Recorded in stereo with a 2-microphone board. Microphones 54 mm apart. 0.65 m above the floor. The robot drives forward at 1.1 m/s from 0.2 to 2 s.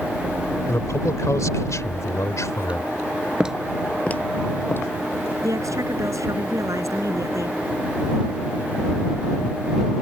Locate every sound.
0.7 s a man speaking: 60° left (ahead or behind); by 2.9 s 70° left (ahead or behind)
3.4 s footsteps: 20° right (ahead or behind); by 5.3 s 45° left (ahead or behind)
5.4 s a woman speaking: 75° right (ahead or behind)